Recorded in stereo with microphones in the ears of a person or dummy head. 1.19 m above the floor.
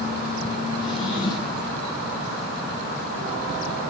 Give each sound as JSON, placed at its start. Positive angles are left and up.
{"t": 0.8, "sound": "a drawer", "side_deg": 35, "distance_m": 10.0}